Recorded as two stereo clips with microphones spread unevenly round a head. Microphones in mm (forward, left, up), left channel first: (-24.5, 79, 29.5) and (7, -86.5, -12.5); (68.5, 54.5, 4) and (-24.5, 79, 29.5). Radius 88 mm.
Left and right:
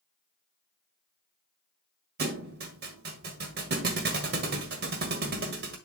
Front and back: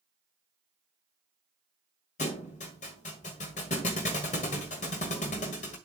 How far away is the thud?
About 1.5 m.